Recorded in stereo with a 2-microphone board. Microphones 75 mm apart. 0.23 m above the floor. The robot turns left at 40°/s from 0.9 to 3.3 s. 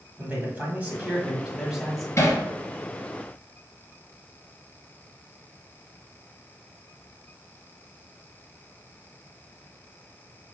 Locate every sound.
0.2 s a man speaking: 135° right, 1.5 m; by 2.1 s straight behind, 1.5 m
2.2 s hammering: 40° left (ahead or behind), 2.0 m; by 2.4 s 50° left (ahead or behind), 2.0 m